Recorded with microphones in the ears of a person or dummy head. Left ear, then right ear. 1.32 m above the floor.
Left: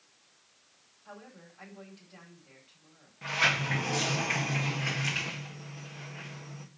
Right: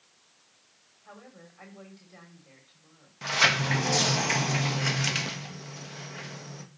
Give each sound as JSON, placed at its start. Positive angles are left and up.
{"t": 1.1, "sound": "a woman speaking", "side_deg": -10, "distance_m": 4.5}
{"t": 3.2, "sound": "a sliding door", "side_deg": -85, "distance_m": 1.6}